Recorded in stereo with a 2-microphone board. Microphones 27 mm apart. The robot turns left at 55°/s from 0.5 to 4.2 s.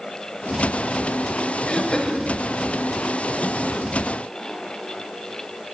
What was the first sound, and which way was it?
Throat clearing, 55° left.